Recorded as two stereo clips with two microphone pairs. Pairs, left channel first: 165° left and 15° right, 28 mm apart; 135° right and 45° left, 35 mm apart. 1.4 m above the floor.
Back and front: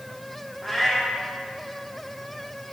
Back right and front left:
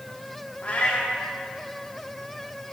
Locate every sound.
0.6 s a cat meowing: 115° right, 1.1 m